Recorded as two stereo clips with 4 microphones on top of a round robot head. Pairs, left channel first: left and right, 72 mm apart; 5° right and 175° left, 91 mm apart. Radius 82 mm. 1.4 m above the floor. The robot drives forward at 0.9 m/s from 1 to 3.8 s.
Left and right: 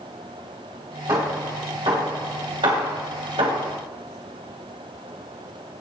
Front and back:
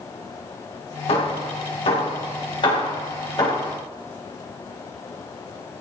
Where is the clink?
No clink in this recording.